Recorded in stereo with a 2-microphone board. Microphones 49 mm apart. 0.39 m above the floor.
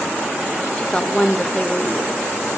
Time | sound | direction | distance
0.8 | a woman speaking | 20° left (ahead or behind) | 0.8 m